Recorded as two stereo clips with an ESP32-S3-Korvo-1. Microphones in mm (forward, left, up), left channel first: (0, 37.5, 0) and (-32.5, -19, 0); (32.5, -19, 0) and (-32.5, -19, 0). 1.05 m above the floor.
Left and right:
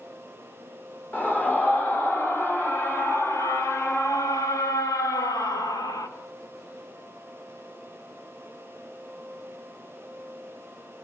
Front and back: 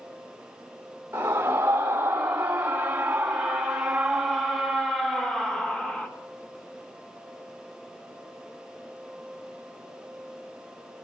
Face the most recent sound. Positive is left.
turn(degrees=70)